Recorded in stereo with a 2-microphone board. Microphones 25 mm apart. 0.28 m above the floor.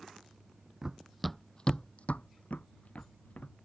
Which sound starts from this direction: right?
Running footsteps, at 0.8 s.